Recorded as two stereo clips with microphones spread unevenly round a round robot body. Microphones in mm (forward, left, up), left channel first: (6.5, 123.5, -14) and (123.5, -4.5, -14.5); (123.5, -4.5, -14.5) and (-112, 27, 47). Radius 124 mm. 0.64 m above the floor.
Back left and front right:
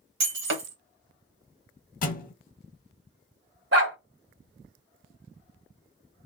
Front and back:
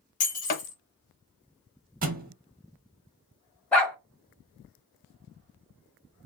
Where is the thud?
150° left, 0.6 m.